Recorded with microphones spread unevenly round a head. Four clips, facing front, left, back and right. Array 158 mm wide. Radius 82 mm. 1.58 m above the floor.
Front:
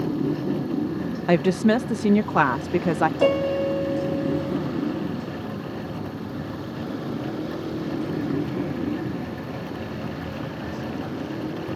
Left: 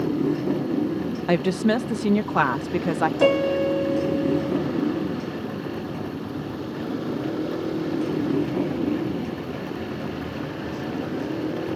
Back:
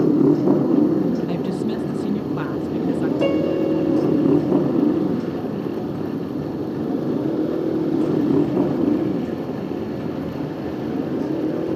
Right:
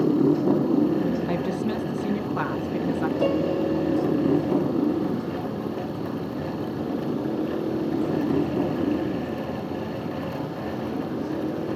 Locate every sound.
0.0 s a motorcycle: 170° right; by 11.8 s 170° left
1.3 s a woman speaking: 45° left
3.2 s a piano: 95° left